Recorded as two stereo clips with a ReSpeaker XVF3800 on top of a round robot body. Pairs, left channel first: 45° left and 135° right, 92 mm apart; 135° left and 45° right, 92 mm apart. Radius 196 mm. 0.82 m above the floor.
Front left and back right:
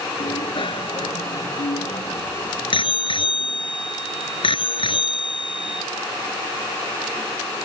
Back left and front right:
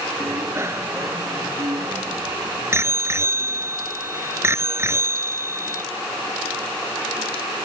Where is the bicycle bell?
20° left.